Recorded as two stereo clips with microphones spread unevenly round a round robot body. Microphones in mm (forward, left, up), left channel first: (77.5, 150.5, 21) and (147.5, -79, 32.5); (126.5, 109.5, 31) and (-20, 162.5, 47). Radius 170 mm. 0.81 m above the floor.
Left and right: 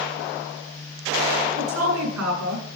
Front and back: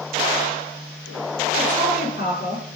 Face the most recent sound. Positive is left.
turn(degrees=-80)